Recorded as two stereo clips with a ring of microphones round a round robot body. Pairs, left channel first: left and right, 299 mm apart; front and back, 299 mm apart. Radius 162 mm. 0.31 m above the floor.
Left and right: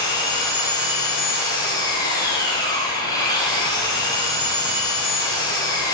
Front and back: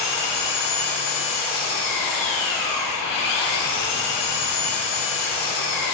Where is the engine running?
10° left, 5.5 m.